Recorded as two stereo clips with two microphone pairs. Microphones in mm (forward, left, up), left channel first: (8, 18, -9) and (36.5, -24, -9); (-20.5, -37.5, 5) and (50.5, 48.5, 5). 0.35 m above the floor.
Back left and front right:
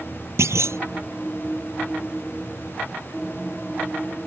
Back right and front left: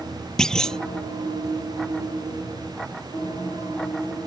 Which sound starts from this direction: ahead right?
A clunk, at 0.4 s.